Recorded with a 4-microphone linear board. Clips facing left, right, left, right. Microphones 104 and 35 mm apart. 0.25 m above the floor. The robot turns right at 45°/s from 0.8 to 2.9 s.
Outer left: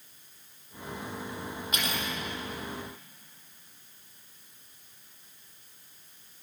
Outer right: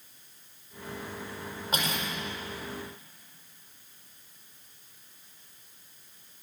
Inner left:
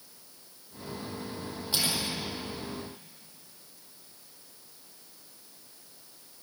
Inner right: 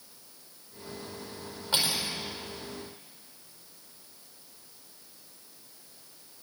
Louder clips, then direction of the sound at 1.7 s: Outer right 2 dB, inner right 2 dB; 35° right (ahead or behind).